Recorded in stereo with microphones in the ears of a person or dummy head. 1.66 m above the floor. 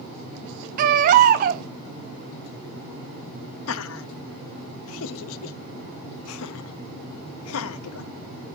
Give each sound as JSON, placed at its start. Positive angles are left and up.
{"t": 0.8, "sound": "a baby crying", "side_deg": -50, "distance_m": 1.1}
{"t": 3.7, "sound": "laughter", "side_deg": 85, "distance_m": 0.7}